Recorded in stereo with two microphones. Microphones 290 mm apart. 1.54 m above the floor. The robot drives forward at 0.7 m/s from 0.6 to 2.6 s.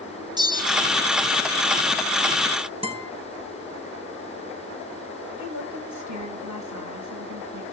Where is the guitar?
20° right (ahead or behind), 5 m.